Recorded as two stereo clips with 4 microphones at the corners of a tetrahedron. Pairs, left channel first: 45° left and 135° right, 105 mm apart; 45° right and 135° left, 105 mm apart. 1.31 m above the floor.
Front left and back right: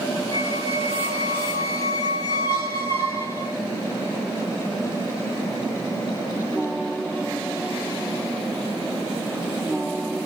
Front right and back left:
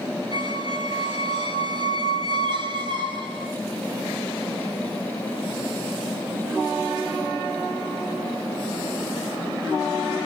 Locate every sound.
0.3 s a squeak: 100° left, 2.5 m